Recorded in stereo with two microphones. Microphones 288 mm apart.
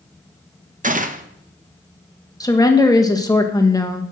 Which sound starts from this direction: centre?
A woman speaking, at 2.4 s.